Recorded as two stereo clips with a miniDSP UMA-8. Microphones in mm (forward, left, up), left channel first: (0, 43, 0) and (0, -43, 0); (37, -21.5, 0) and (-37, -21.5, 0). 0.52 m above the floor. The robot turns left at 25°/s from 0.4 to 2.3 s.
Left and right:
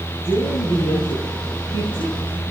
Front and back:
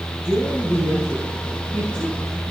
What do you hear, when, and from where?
0.2 s a woman speaking: 110° left, 6 m; by 2.4 s 60° left, 6 m